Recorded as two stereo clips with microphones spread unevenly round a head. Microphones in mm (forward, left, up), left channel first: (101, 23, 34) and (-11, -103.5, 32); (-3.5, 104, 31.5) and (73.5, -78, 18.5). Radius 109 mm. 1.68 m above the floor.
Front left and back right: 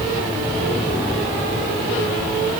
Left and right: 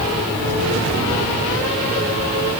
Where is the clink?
I don't hear a clink.